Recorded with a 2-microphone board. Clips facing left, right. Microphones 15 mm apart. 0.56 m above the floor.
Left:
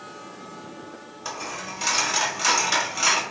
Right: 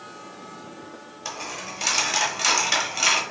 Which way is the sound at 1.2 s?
20° right (ahead or behind).